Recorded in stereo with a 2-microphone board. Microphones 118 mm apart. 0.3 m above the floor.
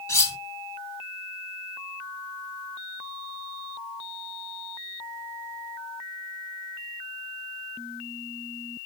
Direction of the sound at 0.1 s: 25° left (ahead or behind).